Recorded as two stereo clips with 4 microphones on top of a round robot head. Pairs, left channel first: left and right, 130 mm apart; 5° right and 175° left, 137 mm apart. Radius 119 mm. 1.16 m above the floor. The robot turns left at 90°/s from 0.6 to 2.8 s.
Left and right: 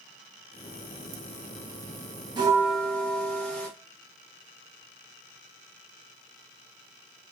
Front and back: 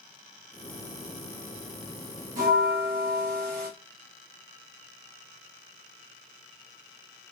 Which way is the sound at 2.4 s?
150° right.